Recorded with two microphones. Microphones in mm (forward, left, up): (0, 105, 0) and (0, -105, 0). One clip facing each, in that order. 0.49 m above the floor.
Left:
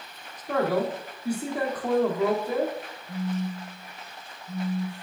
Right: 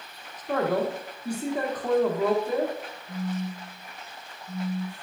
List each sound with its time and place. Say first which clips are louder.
0.5 s a man speaking: even; 10° left (ahead or behind), 0.7 m
3.1 s a phone buzzing: left 2 dB; 10° right (ahead or behind), 0.6 m